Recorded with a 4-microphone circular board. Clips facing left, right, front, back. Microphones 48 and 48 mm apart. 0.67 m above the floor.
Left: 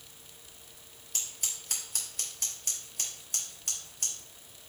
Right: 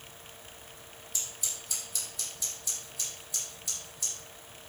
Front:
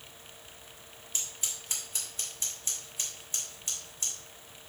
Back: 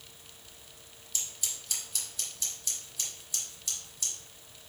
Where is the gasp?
No gasp in this recording.